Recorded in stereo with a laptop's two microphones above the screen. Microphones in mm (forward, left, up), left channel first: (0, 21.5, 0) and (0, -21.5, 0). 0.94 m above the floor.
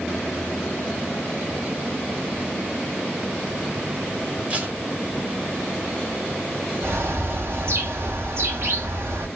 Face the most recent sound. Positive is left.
turn(degrees=-60)  # may be behind; listen again after turning